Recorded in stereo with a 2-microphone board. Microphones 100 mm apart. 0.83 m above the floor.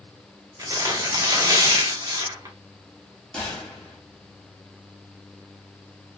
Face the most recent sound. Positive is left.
turn(degrees=10)  # may be behind; listen again after turning